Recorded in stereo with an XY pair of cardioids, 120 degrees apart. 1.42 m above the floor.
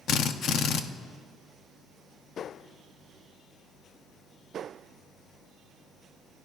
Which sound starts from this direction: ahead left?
A drill, at 0.1 s.